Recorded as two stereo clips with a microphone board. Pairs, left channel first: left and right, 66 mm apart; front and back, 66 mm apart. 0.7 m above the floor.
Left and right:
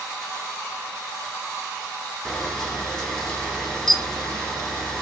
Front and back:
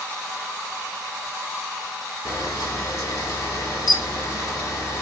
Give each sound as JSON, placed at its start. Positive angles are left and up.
{"t": 2.2, "sound": "a camera shutter", "azimuth_deg": 5, "distance_m": 1.1}